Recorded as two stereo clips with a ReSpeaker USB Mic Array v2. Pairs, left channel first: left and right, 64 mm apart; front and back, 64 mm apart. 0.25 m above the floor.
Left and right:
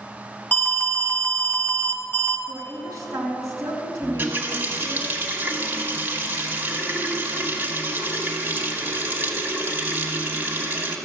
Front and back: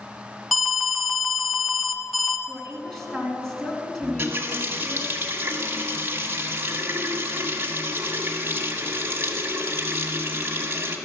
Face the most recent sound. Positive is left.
turn(degrees=-135)